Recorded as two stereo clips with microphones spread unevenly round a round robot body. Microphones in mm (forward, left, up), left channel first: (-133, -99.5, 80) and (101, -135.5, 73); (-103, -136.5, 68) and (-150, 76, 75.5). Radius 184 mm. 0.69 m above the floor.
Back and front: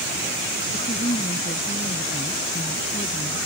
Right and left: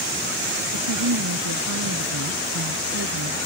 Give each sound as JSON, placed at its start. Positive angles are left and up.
{"t": 0.7, "sound": "a woman speaking", "azimuth_deg": 100}